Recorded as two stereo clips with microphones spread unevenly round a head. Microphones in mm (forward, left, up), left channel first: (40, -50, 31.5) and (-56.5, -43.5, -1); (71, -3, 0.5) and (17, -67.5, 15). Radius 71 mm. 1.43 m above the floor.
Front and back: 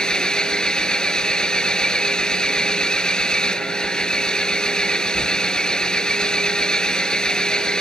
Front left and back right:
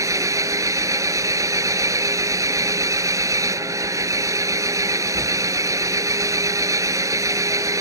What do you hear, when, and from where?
0.0 s an engine running: 80° right